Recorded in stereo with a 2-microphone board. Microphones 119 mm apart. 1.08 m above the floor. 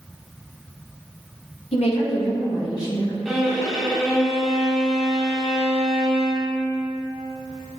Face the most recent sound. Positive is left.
turn(degrees=0)  # may be behind; listen again after turning